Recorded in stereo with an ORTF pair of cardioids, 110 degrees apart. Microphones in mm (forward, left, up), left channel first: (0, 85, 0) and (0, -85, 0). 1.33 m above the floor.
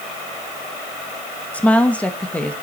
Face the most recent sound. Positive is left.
turn(degrees=10)